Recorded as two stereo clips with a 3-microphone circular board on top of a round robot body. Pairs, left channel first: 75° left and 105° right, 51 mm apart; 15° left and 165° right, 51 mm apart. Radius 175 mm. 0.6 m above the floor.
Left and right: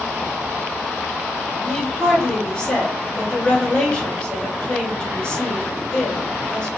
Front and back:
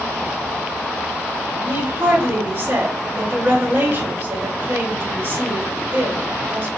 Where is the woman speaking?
145° left, 3 m.